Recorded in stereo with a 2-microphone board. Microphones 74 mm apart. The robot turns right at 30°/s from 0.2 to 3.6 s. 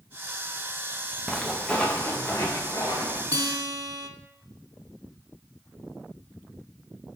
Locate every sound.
1.3 s footsteps: centre (ahead or behind), 0.9 m; by 3.2 s 60° left (ahead or behind), 3.5 m
3.3 s a guitar: 50° right (ahead or behind), 0.6 m